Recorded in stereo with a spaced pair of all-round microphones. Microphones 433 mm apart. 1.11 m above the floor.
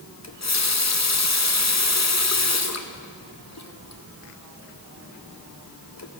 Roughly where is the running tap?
Left.